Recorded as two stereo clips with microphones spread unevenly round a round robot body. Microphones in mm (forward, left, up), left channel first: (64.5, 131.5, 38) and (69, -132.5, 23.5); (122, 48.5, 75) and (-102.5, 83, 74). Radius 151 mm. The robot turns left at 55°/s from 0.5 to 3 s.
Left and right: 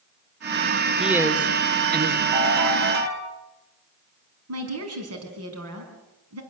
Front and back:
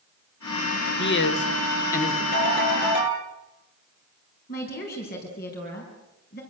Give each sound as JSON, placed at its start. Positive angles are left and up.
{"t": 1.0, "sound": "a man speaking", "azimuth_deg": 0, "distance_m": 1.8}
{"t": 2.3, "sound": "a ringtone", "azimuth_deg": -70, "distance_m": 9.5}
{"t": 4.5, "sound": "a woman speaking", "azimuth_deg": -65, "distance_m": 5.0}